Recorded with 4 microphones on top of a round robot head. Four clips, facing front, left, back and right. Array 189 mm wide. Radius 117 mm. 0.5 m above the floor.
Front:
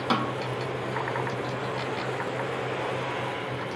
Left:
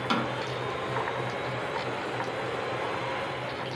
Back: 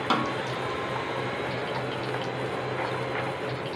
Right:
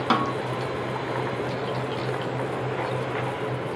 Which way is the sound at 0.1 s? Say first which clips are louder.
Right 6 dB, even; 95° right.